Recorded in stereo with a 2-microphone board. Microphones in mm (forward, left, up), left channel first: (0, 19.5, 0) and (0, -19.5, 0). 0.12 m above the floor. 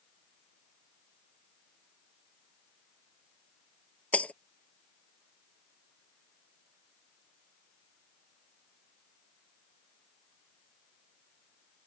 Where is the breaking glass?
40° left (ahead or behind).